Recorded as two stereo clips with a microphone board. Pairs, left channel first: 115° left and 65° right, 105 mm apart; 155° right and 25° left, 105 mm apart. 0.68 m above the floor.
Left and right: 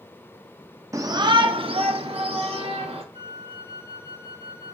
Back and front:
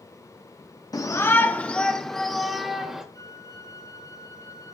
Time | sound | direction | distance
0.9 | a shout | 115° right | 0.7 m
3.1 | a flute | 105° right | 2.5 m